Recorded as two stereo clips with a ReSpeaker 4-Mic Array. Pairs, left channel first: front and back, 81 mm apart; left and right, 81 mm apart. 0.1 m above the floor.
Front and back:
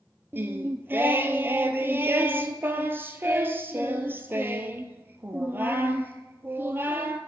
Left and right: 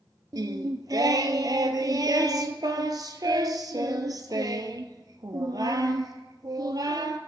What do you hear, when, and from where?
0.3 s singing: 120° right, 0.6 m